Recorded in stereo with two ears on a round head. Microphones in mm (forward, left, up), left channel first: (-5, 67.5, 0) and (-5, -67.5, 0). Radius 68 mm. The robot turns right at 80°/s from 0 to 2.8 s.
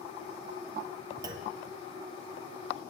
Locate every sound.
1.2 s a clunk: 25° right (ahead or behind), 1.2 m; by 1.6 s 45° right (ahead or behind), 1.2 m